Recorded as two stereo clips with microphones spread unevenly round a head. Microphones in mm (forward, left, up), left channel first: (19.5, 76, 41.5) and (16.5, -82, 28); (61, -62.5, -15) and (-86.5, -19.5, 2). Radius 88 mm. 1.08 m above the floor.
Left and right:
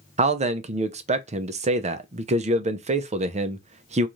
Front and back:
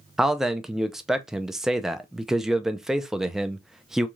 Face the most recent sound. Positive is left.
turn(degrees=-105)